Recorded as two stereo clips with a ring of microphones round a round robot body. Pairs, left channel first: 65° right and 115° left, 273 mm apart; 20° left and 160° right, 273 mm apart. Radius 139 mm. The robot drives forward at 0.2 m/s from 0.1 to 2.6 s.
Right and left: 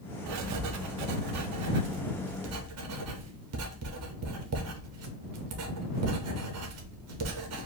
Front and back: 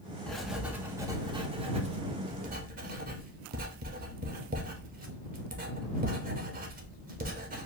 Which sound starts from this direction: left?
Writing, at 0.3 s.